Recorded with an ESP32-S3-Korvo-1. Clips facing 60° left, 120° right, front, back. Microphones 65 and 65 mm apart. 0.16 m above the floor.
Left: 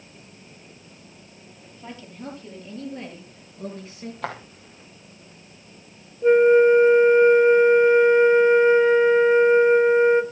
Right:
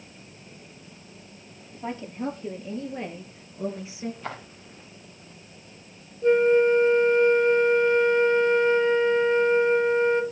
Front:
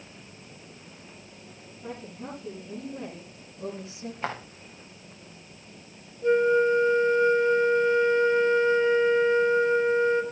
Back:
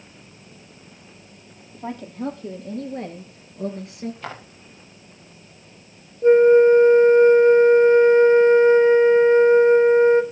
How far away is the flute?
About 1.2 m.